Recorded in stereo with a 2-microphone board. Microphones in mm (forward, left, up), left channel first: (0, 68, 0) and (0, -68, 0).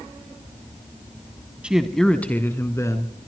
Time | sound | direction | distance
1.6 | a man speaking | 5° right (ahead or behind) | 1.0 m